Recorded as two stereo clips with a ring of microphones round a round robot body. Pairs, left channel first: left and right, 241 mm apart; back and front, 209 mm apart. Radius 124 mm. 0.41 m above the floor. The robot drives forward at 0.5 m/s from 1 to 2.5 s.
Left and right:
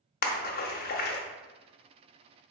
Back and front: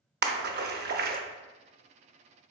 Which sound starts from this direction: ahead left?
A splash, at 0.2 s.